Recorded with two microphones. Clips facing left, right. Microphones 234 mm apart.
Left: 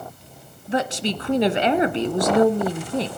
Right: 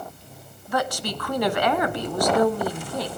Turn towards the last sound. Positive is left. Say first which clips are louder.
# left 3 dB
turn(degrees=25)  # may be behind; listen again after turning